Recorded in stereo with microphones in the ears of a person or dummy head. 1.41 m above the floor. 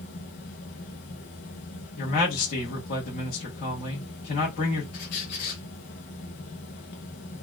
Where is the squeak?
45° left (ahead or behind), 1.0 m.